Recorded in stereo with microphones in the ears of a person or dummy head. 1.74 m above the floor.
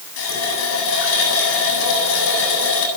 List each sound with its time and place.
0.2 s a running tap: 80° left, 8.5 m